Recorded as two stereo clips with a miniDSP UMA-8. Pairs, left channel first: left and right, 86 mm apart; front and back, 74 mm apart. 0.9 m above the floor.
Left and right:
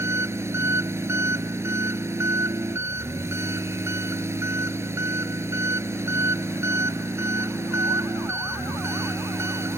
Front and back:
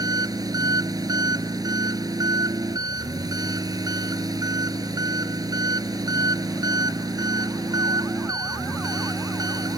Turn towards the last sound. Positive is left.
turn(degrees=-150)